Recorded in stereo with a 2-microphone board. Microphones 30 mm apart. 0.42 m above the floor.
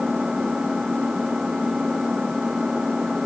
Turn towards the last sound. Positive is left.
turn(degrees=-20)  # may be behind; listen again after turning